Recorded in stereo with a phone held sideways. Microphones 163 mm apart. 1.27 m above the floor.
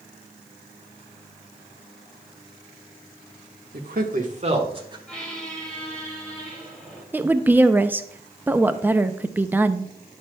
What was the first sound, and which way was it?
A man speaking, 75° right (ahead or behind).